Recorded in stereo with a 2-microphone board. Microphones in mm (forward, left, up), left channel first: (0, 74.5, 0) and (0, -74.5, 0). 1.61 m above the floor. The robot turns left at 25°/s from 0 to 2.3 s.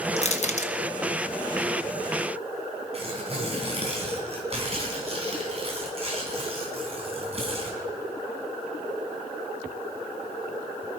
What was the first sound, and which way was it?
Crushing, 50° left (ahead or behind).